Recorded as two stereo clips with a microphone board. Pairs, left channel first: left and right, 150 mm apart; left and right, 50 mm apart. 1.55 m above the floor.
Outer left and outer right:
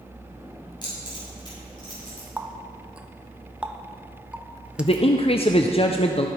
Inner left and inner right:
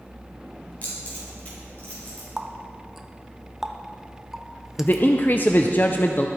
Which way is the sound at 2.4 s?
5° right (ahead or behind).